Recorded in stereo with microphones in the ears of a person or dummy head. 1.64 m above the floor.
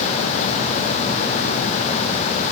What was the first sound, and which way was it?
Only background noise.